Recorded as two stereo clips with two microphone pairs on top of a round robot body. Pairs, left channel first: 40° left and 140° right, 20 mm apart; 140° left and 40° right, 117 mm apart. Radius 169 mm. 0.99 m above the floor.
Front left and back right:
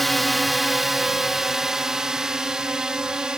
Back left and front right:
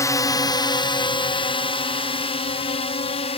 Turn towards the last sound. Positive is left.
turn(degrees=170)